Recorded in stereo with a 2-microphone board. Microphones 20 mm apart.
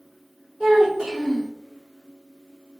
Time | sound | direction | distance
0.6 | a child speaking | 50° right (ahead or behind) | 0.8 m